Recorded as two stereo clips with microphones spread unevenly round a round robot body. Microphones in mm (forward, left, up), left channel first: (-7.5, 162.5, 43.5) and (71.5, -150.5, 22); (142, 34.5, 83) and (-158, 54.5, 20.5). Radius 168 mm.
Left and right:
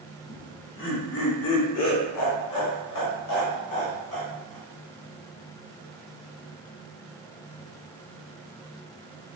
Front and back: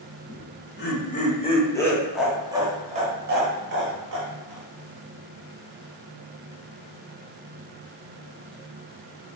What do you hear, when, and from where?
0.3 s laughter: 45° left, 1.5 m; by 4.7 s 155° left, 1.8 m